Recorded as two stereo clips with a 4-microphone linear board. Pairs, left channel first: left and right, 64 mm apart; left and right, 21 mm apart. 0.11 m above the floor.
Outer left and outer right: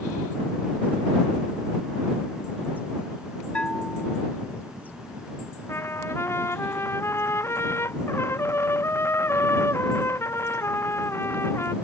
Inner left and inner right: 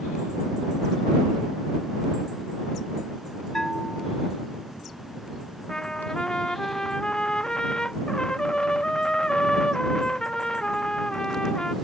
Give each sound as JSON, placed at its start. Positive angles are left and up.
{"t": 3.5, "sound": "a bell", "side_deg": 15}
{"t": 5.7, "sound": "a trumpet", "side_deg": 45}